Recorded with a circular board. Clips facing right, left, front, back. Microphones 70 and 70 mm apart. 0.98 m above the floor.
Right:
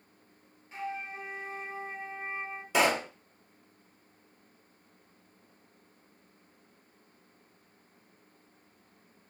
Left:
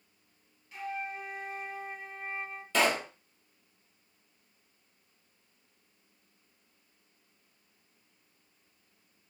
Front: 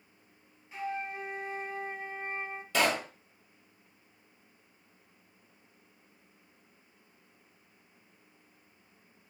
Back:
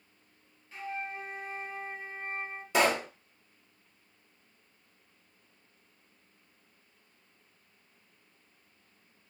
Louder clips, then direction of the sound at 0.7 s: Even, front 2 dB; 60° right.